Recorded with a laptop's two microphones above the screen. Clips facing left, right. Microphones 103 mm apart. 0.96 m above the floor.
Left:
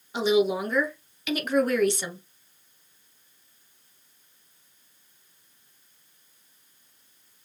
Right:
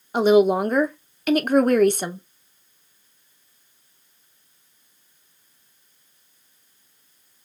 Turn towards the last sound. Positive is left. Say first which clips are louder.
# right 7 dB
turn(degrees=-50)  # may be behind; listen again after turning